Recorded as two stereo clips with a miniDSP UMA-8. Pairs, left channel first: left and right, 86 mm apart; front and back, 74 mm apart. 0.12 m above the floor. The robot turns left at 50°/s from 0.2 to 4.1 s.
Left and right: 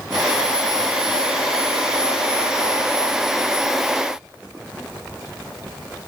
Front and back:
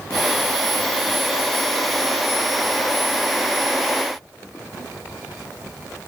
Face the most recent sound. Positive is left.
No sound to turn to.